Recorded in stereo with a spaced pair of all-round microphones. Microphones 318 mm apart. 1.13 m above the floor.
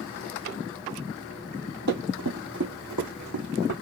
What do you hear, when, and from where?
1.9 s running footsteps: 60° right (ahead or behind), 2 m